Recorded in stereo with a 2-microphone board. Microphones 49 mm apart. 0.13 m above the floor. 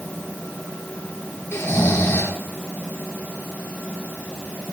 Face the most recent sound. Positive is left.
turn(degrees=55)  # may be behind; listen again after turning